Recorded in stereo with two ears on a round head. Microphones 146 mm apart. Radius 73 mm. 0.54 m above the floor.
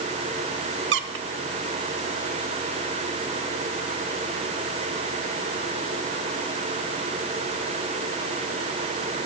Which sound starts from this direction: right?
A squeak, at 0.9 s.